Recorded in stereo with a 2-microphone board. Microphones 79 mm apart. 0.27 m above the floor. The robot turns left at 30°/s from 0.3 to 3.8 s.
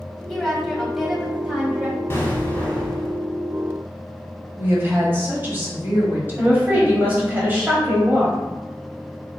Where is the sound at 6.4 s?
25° right (ahead or behind), 1.0 m.